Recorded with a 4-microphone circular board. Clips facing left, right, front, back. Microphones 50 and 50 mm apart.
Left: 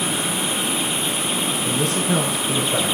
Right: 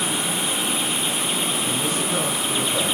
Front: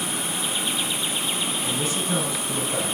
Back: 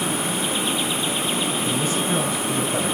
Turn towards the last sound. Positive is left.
turn(degrees=95)